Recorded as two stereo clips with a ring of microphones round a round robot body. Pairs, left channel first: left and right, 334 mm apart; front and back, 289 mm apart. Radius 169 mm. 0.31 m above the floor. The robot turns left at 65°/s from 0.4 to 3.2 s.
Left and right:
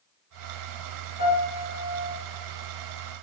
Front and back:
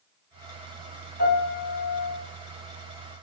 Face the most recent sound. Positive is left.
turn(degrees=-85)